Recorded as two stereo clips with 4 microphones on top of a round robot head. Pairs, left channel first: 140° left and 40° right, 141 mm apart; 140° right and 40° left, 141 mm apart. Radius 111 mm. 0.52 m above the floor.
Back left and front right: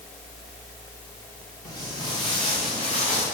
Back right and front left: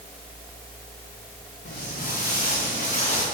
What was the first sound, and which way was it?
Footsteps, 155° right.